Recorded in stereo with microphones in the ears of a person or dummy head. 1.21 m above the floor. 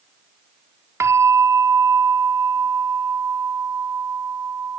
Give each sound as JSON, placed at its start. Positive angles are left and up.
{"t": 1.0, "sound": "a bell", "side_deg": -10}